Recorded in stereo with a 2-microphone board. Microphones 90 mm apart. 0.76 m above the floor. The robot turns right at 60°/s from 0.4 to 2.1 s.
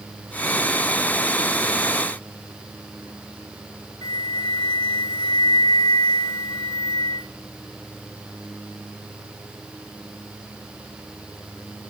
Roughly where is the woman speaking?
No woman speaking in this recording.